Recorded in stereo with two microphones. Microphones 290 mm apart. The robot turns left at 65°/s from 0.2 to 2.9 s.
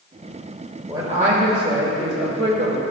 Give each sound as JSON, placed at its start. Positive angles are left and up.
{"t": 0.9, "sound": "a man speaking", "azimuth_deg": -15, "distance_m": 1.2}